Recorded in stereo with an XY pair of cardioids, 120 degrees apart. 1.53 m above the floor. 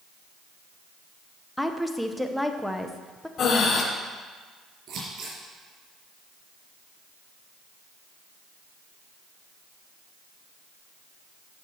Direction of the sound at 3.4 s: 50° left.